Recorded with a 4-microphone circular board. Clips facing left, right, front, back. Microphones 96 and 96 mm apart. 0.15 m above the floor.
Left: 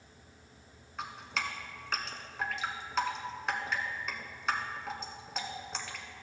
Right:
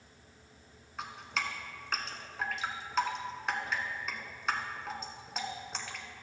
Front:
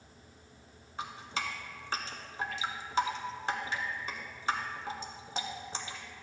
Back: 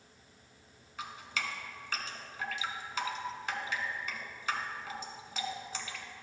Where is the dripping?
Straight ahead, 0.8 m.